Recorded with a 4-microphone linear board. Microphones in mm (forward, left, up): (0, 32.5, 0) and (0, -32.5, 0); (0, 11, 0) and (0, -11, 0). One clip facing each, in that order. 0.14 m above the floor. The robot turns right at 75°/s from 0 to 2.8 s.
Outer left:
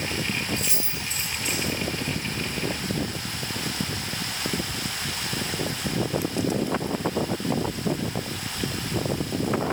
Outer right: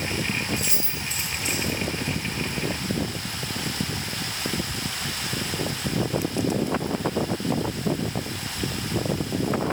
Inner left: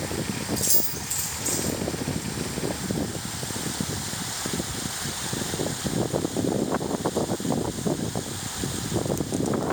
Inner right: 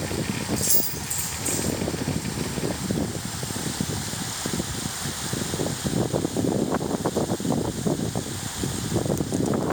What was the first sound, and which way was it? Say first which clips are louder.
Keys jangling: outer right 1 dB, even; 5° right (ahead or behind).